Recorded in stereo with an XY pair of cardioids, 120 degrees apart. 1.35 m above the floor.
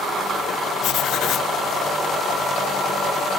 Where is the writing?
65° left, 1.4 m.